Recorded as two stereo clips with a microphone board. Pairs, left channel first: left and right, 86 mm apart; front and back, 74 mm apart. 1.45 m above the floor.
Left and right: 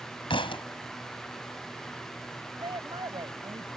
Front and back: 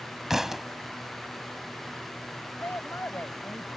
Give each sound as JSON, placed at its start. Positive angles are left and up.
{"t": 0.3, "sound": "a thud", "azimuth_deg": 95}
{"t": 2.6, "sound": "a woman speaking", "azimuth_deg": -60}